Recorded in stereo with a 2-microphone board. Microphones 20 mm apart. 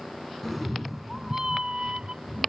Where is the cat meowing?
10° left (ahead or behind); by 2.5 s 60° right (ahead or behind).